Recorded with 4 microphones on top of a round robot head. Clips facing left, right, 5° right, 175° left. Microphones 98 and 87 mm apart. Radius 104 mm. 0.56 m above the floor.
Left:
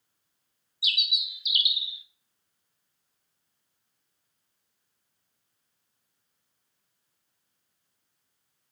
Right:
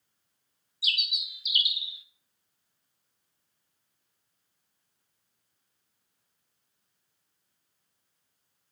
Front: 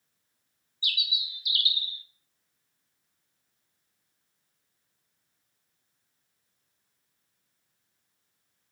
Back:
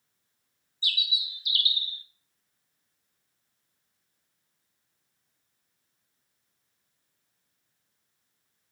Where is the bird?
135° right, 1.5 m.